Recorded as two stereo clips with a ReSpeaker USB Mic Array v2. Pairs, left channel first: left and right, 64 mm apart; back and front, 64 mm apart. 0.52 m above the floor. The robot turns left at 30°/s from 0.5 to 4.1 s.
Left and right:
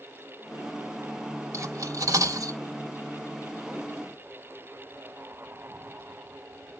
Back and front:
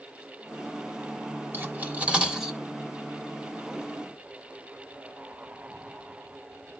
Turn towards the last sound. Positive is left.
turn(degrees=-130)